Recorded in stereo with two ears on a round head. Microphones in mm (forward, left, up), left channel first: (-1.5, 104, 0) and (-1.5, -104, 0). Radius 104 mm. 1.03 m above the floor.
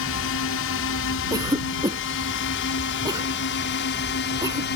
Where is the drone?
65° left (ahead or behind); by 4.8 s 50° left (ahead or behind).